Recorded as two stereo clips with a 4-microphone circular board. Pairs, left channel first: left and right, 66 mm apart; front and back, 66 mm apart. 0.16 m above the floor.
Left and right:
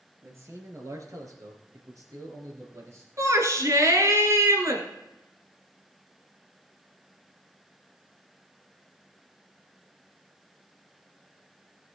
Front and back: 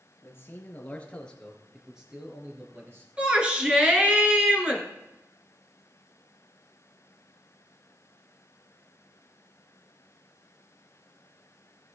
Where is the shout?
110° right, 2.5 m.